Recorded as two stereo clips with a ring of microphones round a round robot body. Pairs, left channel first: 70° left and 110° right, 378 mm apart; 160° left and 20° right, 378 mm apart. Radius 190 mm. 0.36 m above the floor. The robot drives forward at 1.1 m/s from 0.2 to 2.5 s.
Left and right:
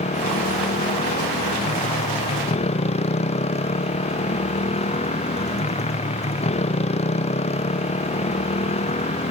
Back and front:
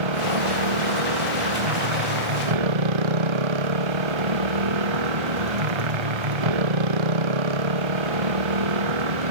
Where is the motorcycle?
5° right.